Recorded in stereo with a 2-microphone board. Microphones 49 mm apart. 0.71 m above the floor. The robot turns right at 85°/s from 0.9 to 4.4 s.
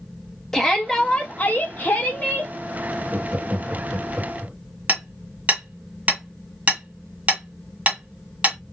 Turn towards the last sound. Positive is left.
turn(degrees=-25)  # may be behind; listen again after turning